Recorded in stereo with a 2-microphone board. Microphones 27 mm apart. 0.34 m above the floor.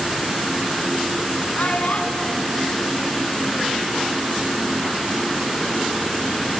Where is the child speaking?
65° left (ahead or behind), 1.7 m; by 3.9 s 15° right (ahead or behind), 0.7 m.